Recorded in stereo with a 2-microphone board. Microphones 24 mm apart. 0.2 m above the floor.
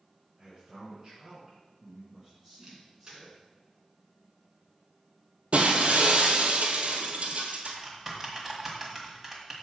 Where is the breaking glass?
70° right (ahead or behind), 1.2 m.